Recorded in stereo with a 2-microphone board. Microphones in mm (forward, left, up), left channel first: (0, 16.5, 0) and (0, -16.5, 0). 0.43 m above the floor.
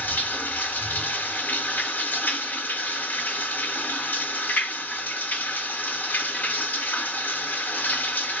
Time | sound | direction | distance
0.0 | running water | 75° left (ahead or behind) | 1.1 m